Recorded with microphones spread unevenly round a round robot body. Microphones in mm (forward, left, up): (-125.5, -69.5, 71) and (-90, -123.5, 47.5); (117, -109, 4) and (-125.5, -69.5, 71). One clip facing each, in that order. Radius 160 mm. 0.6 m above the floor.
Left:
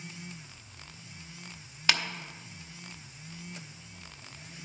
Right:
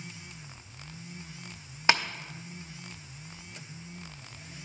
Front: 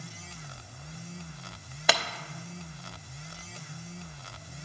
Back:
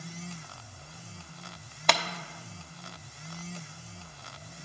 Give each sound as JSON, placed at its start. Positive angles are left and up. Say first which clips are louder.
{"t": 1.9, "sound": "tapping", "louder": "right 4 dB, even", "azimuth_deg": -75, "distance_m": 0.9}